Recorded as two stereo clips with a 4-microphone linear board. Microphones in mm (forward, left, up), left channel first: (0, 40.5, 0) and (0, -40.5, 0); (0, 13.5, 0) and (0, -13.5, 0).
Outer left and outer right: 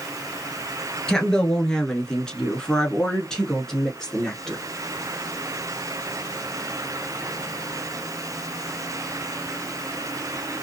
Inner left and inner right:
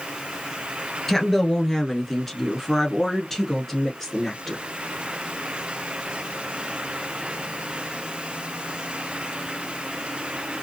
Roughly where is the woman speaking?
Centre.